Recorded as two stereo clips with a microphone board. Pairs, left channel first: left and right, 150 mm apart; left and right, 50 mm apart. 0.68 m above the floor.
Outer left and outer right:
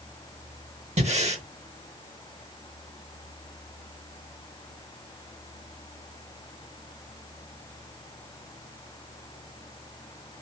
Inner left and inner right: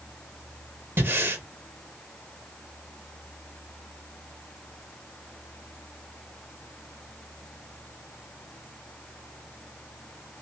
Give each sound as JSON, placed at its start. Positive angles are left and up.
{"t": 1.0, "sound": "breathing", "side_deg": -45, "distance_m": 0.7}